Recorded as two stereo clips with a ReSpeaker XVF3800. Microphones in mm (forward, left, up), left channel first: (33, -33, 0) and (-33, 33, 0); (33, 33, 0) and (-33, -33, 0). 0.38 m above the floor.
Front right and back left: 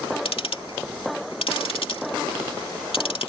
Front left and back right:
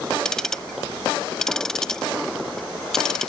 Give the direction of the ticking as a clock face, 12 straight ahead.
1 o'clock.